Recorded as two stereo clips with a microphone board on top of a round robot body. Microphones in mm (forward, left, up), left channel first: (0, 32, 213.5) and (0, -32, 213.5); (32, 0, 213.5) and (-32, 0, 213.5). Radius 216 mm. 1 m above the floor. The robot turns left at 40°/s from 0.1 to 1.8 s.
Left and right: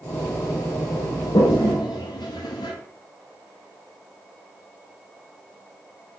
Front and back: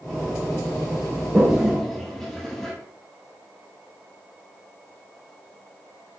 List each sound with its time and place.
1.3 s a toilet flushing: 105° left, 1.1 m; by 2.7 s 85° left, 1.1 m